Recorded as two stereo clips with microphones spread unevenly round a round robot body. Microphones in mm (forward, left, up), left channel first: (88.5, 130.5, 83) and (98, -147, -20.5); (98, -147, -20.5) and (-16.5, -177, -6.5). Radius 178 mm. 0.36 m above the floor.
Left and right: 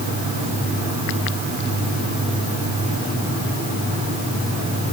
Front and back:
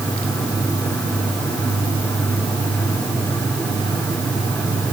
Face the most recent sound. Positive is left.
No sound to turn to.